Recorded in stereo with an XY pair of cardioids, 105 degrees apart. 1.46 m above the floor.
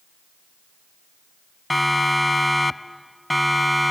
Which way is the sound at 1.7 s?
10° left.